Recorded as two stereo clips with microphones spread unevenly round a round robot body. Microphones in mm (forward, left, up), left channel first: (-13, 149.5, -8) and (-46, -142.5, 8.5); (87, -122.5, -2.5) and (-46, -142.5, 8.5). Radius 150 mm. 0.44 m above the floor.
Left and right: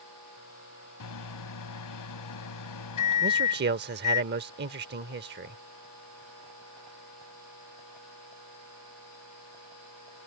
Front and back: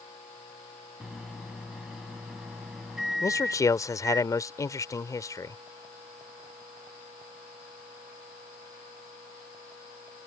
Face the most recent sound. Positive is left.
turn(degrees=-45)